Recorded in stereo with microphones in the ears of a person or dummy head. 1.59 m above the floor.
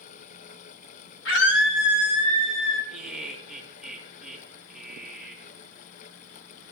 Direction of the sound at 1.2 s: 70° left (ahead or behind).